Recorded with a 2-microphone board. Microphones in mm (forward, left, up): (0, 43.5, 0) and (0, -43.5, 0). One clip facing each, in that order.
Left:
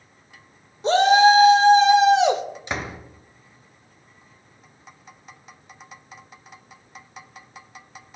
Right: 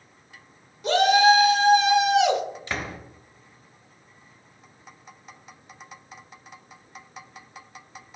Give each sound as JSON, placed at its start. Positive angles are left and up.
{"t": 0.8, "sound": "a shout", "side_deg": 30, "distance_m": 1.3}
{"t": 2.7, "sound": "a door slam", "side_deg": 20, "distance_m": 1.1}